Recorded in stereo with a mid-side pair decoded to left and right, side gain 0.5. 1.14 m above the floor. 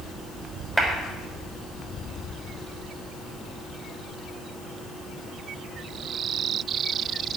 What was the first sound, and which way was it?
A clap, 10° right.